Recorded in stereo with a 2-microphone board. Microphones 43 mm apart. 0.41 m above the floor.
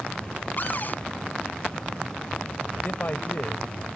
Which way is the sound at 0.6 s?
45° left (ahead or behind).